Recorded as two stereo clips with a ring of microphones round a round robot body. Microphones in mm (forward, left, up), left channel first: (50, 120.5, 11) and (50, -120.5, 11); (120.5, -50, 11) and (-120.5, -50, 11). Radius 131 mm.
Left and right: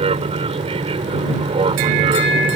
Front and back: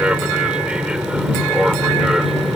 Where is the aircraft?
100° right; by 2.5 s 95° right.